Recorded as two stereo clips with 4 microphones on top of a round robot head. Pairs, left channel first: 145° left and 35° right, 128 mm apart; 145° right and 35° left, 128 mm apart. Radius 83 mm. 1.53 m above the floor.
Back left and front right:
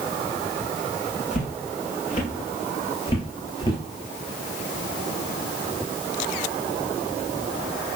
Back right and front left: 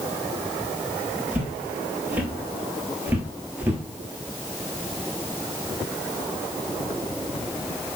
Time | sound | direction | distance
1.3 | footsteps | 115° left | 2.5 m